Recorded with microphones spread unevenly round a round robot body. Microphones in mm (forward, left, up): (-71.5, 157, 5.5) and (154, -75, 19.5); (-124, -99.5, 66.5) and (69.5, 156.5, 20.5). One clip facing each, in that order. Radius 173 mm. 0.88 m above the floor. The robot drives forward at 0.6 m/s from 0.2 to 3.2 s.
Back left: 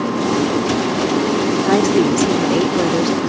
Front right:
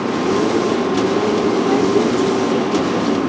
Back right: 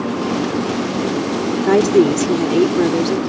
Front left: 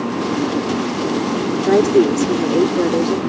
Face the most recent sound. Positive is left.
turn(degrees=165)